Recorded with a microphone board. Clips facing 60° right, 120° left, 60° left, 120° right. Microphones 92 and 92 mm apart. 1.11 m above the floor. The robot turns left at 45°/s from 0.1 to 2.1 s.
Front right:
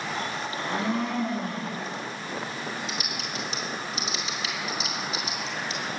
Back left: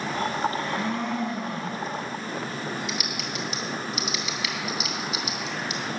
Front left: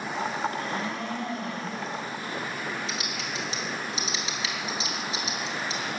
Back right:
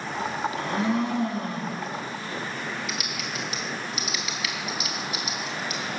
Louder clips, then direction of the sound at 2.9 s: Back left 2 dB, back right 1 dB; 5° right.